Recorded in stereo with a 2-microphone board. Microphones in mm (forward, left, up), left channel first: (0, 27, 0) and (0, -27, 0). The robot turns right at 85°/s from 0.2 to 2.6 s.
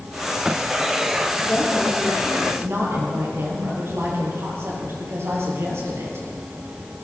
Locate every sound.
1.4 s a woman speaking: 140° left, 5 m; by 6.2 s 120° right, 5 m